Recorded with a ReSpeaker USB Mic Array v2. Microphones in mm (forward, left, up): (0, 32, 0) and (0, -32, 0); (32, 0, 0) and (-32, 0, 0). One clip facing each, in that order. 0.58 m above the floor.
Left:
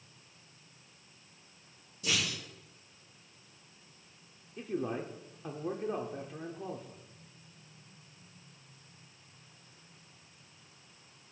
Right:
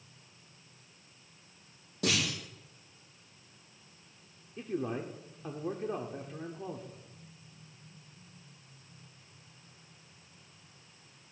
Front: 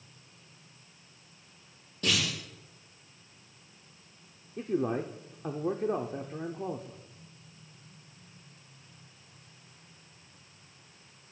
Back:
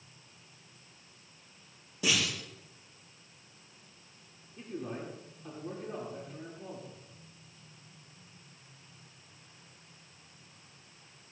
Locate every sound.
2.0 s a clunk: 100° right, 8.5 m
4.6 s a man speaking: straight ahead, 1.1 m